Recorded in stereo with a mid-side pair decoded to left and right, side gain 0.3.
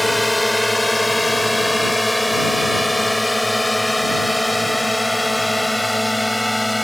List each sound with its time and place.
0.0 s a drone: 15° left; by 6.8 s 10° left